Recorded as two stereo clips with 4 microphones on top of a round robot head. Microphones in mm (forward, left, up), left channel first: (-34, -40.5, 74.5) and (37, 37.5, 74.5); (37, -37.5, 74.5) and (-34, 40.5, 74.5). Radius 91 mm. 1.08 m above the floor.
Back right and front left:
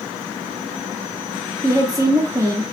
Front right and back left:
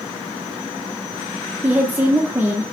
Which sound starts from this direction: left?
A woman speaking, at 1.6 s.